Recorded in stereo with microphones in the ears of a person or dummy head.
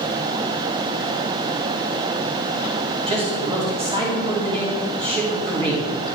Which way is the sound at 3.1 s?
30° right (ahead or behind).